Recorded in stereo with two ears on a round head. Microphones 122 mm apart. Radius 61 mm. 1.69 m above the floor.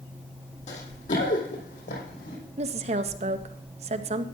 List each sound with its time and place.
0.7 s running footsteps: 55° left (ahead or behind), 4 m; by 2.4 s 65° left (ahead or behind), 4.5 m
2.6 s a woman speaking: 50° right (ahead or behind), 0.8 m